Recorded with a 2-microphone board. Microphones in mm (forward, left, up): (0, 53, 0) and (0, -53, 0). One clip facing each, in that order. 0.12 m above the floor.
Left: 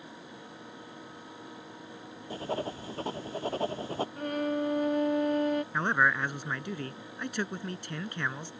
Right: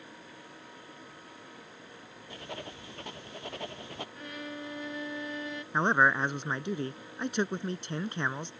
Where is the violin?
50° left (ahead or behind).